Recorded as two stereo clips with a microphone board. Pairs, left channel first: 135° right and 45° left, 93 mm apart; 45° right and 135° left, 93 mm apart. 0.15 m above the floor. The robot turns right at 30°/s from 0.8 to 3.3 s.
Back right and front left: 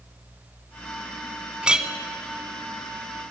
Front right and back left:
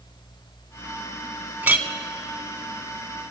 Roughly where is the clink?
Left.